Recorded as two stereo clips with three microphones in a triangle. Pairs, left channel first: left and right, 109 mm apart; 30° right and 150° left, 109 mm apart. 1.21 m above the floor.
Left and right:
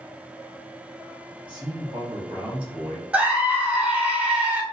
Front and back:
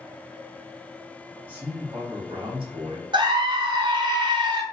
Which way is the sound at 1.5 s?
135° right.